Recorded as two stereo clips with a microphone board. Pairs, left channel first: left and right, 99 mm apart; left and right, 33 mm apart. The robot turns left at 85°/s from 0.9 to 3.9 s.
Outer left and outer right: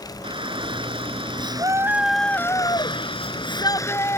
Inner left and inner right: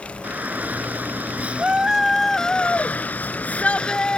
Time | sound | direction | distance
0.2 | a shout | 75° right | ?